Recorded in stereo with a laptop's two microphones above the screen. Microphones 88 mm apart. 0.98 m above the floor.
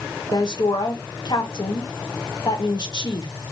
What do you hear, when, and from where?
0.3 s a woman speaking: 55° left (ahead or behind), 0.8 m